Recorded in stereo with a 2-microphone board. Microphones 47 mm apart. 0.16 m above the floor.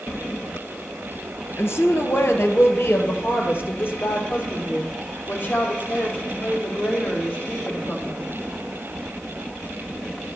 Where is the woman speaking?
60° left (ahead or behind), 3 m; by 8.2 s 30° left (ahead or behind), 6.5 m.